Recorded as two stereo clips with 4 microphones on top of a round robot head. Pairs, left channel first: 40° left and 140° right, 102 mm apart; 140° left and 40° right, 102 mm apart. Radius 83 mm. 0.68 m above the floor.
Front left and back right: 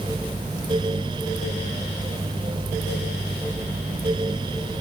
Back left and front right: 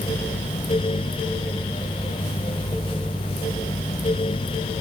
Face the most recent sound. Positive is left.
No sound to turn to.